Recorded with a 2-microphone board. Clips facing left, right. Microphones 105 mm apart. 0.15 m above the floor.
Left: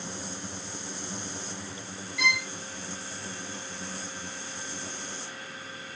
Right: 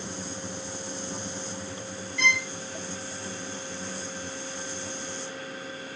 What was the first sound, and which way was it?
A violin, 5° left (ahead or behind).